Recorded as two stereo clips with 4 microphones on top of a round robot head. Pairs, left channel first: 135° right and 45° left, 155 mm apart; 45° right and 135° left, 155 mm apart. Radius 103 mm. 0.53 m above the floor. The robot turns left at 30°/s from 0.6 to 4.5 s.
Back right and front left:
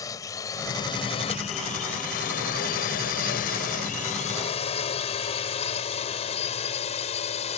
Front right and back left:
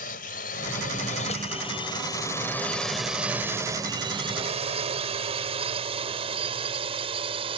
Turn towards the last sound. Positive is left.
turn(degrees=-175)